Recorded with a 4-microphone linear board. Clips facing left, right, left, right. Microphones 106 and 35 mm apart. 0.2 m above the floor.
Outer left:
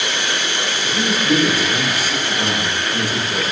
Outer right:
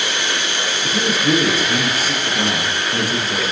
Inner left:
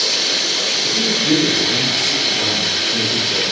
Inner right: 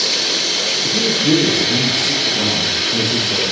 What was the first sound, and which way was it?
A man speaking, 45° right (ahead or behind).